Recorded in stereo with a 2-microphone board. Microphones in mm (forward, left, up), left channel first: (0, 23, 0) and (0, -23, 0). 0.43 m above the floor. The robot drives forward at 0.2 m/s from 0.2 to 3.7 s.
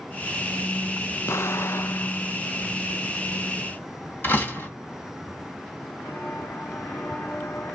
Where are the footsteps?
85° left, 3 m; by 7.7 s 70° left (ahead or behind), 1.5 m.